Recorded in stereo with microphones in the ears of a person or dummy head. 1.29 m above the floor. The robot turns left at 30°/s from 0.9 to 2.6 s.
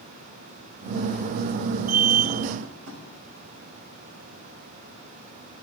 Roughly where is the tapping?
Right.